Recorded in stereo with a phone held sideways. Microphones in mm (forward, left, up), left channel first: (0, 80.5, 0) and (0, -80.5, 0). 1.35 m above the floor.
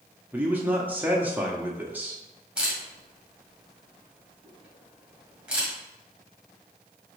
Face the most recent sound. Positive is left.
turn(degrees=-5)  # may be behind; listen again after turning